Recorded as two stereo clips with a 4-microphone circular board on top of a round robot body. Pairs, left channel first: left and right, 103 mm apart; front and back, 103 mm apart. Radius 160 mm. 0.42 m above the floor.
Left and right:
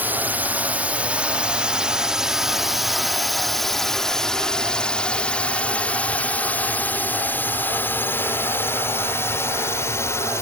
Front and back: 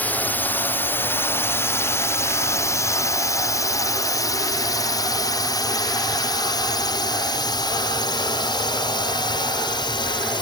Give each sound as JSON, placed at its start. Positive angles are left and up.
{"t": 0.0, "sound": "a drone", "azimuth_deg": -50}